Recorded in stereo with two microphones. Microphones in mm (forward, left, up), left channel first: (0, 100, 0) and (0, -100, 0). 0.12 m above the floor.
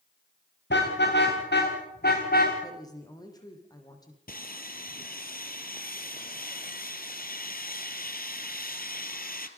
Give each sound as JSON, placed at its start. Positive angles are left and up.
{"t": 0.7, "sound": "a car horn", "side_deg": 60, "distance_m": 7.0}
{"t": 2.6, "sound": "a woman speaking", "side_deg": 20, "distance_m": 5.0}
{"t": 4.3, "sound": "sawing", "side_deg": 45, "distance_m": 2.0}